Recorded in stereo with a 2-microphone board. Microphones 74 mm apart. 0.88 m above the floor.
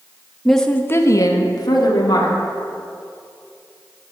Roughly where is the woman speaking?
Centre.